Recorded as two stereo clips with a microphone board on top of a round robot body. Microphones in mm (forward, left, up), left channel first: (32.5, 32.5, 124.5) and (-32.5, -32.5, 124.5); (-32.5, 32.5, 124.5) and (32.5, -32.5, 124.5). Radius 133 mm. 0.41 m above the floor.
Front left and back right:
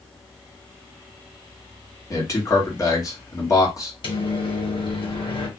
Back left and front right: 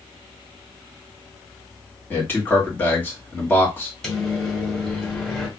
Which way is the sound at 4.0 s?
55° left.